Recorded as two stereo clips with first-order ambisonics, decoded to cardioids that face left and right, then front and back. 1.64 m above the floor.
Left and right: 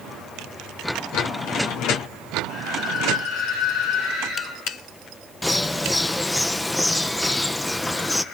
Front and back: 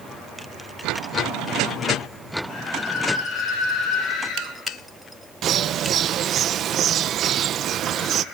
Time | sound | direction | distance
2.5 | a scream | 45° left | 6 m
5.4 | a bird | 170° left | 0.7 m